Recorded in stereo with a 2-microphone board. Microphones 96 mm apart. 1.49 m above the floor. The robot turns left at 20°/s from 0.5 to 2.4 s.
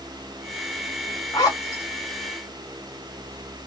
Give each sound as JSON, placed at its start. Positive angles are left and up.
{"t": 1.3, "sound": "a zipper", "side_deg": 40, "distance_m": 2.5}